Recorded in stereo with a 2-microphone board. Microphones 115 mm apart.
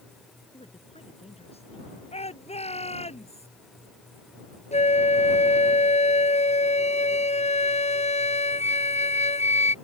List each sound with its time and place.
0.5 s a woman speaking: 60° left (ahead or behind)
2.1 s a shout: 65° left (ahead or behind)
4.7 s a flute: 75° left (ahead or behind)